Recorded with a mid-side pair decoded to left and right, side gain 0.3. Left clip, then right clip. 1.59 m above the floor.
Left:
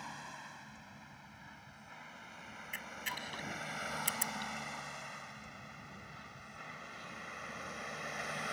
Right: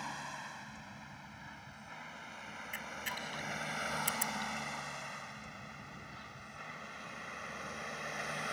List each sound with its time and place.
0.0 s a vehicle: 45° right; by 8.5 s 5° right
2.7 s a camera shutter: 10° left